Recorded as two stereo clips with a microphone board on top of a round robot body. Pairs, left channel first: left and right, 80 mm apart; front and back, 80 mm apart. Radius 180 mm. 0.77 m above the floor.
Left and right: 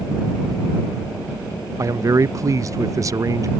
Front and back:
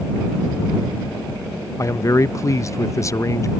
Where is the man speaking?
45° right.